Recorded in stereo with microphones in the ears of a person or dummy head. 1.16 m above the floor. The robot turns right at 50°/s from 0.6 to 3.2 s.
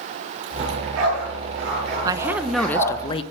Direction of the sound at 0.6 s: 55° right (ahead or behind).